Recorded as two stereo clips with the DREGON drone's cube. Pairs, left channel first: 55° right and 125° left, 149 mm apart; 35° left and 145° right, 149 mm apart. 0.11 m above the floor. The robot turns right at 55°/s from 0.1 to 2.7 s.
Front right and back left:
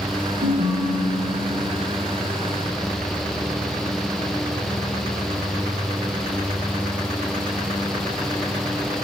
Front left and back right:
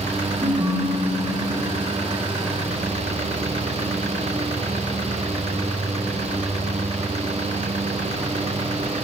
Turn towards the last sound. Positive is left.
turn(degrees=-80)